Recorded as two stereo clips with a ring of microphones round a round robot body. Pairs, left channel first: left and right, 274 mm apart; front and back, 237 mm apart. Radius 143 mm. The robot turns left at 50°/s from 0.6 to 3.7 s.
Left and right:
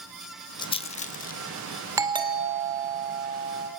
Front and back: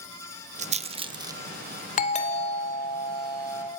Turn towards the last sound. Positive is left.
turn(degrees=-105)